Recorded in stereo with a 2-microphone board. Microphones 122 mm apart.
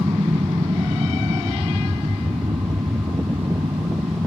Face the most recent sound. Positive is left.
turn(degrees=-45)  # may be behind; listen again after turning